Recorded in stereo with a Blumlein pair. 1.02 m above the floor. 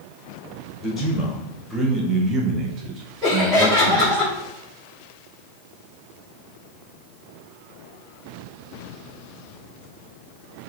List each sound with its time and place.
0.8 s a man speaking: 15° left, 1.5 m; by 4.2 s 55° right, 1.5 m
3.2 s laughter: straight ahead, 2.5 m